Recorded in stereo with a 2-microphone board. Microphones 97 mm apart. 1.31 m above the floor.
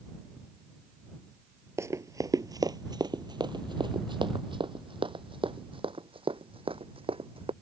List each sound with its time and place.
1.8 s running footsteps: 30° right (ahead or behind); by 7.5 s 65° right (ahead or behind)